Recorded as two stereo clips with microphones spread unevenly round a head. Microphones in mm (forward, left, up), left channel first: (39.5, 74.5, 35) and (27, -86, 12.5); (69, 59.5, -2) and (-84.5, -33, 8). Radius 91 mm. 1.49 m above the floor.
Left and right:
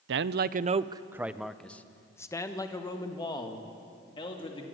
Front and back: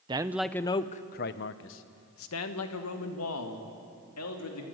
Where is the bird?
No bird in this recording.